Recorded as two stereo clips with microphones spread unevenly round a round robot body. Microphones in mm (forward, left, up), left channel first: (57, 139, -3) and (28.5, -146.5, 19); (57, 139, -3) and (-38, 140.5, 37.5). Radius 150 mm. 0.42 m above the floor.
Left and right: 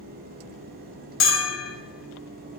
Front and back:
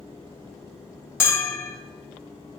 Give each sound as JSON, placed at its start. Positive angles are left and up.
{"t": 1.2, "sound": "a bell", "azimuth_deg": 45, "distance_m": 2.5}